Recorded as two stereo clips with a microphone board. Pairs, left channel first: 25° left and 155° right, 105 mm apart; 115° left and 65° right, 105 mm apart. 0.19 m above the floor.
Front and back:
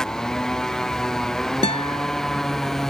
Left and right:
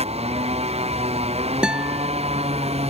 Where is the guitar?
10° left.